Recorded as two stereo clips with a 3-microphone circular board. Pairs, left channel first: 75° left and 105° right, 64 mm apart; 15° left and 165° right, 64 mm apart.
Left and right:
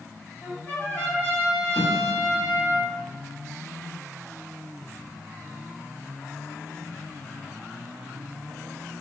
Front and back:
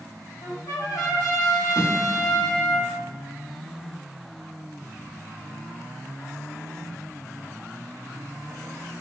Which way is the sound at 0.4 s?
15° left.